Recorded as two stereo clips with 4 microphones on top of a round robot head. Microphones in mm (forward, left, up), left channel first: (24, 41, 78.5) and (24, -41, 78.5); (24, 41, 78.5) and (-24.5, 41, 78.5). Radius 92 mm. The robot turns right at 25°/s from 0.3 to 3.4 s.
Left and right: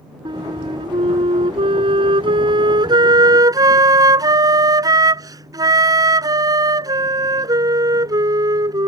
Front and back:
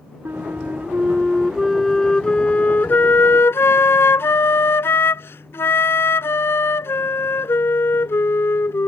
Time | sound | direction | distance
0.2 | a flute | 125° right | ?